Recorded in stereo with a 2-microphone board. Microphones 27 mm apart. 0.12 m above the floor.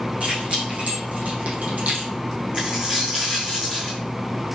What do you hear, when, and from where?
0.2 s keys jangling: 60° right (ahead or behind), 5 m; by 2.1 s 70° right (ahead or behind), 3 m
2.5 s a dropped coin: 40° right (ahead or behind), 4 m